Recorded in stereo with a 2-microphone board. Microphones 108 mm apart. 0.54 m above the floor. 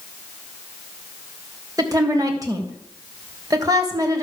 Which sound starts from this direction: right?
A woman speaking, at 1.8 s.